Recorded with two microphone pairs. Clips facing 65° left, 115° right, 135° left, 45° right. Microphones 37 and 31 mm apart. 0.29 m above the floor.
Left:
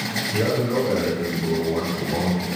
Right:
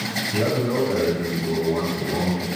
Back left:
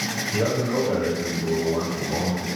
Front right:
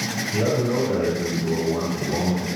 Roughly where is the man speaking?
Behind right.